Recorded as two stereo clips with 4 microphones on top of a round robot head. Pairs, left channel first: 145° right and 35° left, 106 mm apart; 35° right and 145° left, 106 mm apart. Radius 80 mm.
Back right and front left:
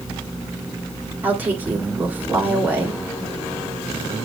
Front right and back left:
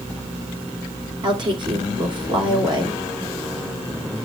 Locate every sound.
1.2 s a woman speaking: 105° left, 3 m